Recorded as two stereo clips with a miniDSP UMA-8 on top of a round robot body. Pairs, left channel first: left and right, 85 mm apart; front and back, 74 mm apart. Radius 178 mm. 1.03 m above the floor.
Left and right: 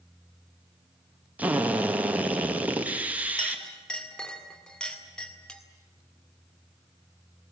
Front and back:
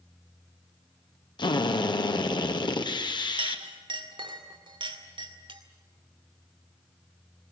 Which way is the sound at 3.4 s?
170° left.